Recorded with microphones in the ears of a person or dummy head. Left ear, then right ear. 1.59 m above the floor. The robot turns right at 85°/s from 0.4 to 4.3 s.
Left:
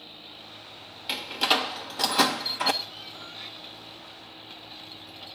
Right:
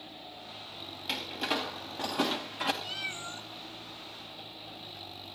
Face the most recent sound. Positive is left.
turn(degrees=20)